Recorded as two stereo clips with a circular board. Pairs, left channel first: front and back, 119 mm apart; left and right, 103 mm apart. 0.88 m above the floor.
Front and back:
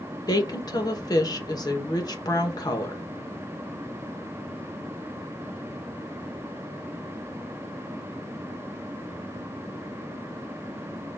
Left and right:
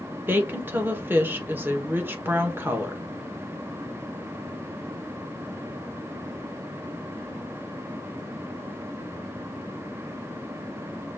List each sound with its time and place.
0.3 s a woman speaking: 30° right, 1.0 m